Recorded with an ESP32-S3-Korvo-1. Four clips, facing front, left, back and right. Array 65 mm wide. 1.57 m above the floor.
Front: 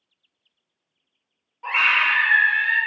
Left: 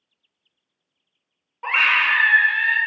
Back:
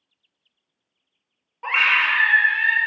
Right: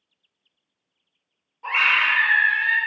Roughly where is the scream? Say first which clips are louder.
Left 1 dB, back 1 dB; behind left.